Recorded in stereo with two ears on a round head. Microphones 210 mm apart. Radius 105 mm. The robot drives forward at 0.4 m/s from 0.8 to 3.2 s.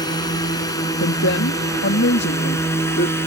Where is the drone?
20° left (ahead or behind); by 3.3 s 10° left (ahead or behind).